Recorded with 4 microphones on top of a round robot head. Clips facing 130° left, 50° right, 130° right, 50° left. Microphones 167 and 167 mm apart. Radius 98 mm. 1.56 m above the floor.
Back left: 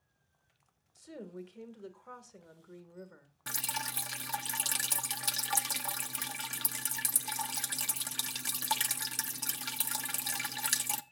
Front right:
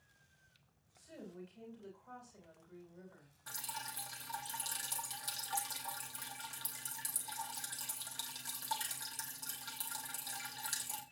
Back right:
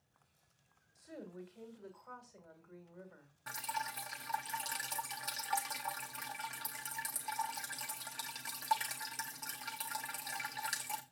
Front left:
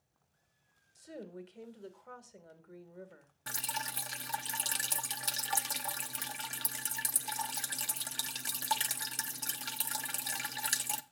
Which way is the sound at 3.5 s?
110° left.